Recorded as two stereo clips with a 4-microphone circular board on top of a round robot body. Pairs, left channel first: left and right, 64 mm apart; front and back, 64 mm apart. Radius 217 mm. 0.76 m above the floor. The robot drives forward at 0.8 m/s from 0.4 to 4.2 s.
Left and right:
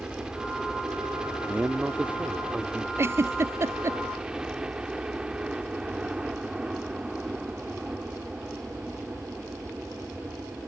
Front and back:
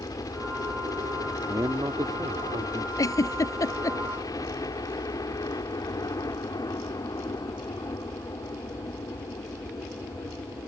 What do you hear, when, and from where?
0.0 s a helicopter: 15° right
1.5 s a man speaking: 155° right; by 2.9 s 165° right
3.0 s a giggle: 35° right; by 4.0 s 40° right